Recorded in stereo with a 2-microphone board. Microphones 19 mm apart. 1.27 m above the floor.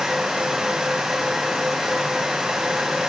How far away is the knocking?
I don't hear knocking.